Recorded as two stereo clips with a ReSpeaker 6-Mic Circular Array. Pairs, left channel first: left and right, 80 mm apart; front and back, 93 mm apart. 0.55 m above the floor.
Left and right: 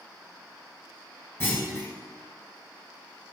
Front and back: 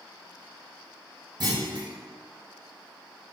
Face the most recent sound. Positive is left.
turn(degrees=145)